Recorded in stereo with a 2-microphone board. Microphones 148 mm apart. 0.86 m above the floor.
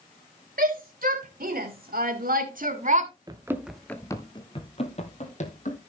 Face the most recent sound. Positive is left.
turn(degrees=55)  # may be behind; listen again after turning